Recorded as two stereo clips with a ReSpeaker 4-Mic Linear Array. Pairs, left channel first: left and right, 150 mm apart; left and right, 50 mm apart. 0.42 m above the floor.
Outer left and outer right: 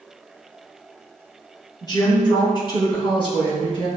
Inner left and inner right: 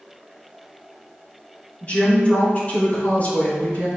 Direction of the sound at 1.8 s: 30° left (ahead or behind).